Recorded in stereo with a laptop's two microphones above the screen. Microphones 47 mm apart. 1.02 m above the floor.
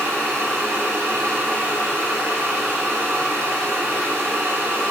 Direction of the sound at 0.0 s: 65° right (ahead or behind).